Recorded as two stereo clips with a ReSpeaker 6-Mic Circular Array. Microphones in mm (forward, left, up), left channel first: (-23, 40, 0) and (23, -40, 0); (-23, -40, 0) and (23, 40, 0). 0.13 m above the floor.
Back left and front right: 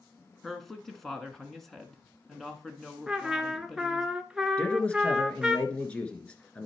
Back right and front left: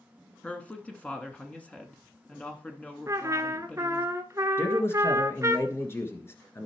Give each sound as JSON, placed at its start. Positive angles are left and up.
{"t": 0.4, "sound": "a woman speaking", "azimuth_deg": -160, "distance_m": 1.3}
{"t": 3.1, "sound": "a trumpet", "azimuth_deg": 20, "distance_m": 0.7}
{"t": 4.6, "sound": "a man speaking", "azimuth_deg": -170, "distance_m": 1.5}